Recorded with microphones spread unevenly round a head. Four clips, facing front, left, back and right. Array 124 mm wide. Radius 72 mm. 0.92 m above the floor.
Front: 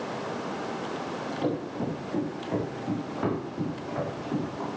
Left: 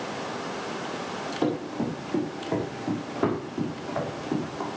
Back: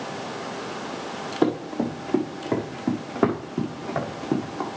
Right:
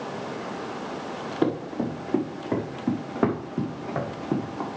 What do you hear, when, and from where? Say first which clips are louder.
1.4 s running footsteps: right 2 dB, back 8 dB; 170° right, 5.5 m; by 4.7 s straight behind, 3.5 m